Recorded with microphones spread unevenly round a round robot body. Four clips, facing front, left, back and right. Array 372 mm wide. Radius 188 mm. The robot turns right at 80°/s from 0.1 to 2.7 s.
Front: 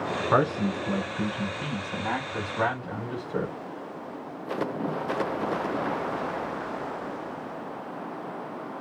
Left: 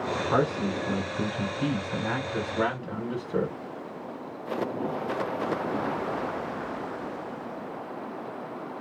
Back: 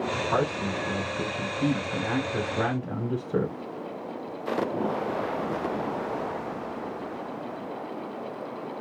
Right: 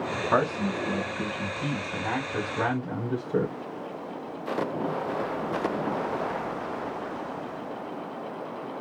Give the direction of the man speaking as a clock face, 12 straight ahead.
12 o'clock.